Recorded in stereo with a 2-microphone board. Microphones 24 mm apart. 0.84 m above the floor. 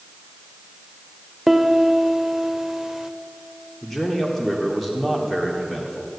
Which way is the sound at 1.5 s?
15° right (ahead or behind).